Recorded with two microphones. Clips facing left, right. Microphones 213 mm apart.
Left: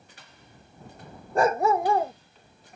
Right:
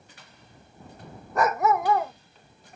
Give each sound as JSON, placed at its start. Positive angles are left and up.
{"t": 1.4, "sound": "a dog barking", "side_deg": 30}